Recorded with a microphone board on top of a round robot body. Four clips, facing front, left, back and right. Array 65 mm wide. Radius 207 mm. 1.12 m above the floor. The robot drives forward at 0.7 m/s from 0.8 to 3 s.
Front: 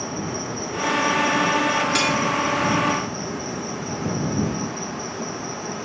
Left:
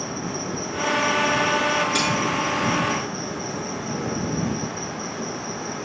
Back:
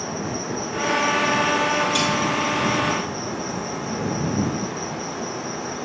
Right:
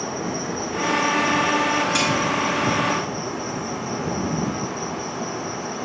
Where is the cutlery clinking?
45° right, 1.0 m; by 2.1 s 55° right, 0.9 m.